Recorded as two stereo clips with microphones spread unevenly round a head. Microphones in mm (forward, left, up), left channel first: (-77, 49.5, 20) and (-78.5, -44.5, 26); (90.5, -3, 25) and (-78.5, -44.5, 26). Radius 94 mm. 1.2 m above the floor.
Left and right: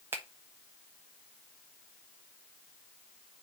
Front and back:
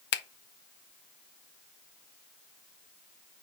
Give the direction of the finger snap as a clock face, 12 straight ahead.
12 o'clock.